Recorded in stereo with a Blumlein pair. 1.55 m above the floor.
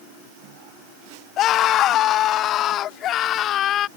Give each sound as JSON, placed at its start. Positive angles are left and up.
{"t": 1.4, "sound": "a scream", "azimuth_deg": 35}